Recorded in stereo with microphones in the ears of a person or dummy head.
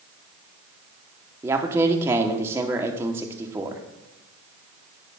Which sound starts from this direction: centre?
A man speaking, at 1.4 s.